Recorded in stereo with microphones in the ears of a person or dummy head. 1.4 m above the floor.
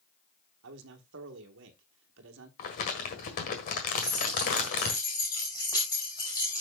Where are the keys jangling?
20° left (ahead or behind), 5.5 m.